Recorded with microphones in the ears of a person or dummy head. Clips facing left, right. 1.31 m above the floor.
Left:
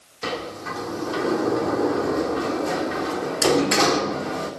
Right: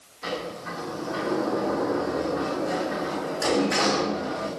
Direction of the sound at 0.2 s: 50° left (ahead or behind).